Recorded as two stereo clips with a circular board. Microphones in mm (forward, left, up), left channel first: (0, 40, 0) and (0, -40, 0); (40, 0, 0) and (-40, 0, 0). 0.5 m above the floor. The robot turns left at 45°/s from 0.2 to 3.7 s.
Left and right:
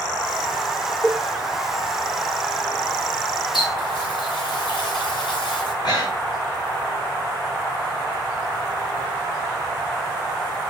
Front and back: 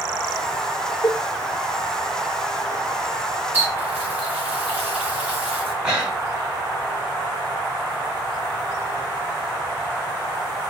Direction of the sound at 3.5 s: 120° left.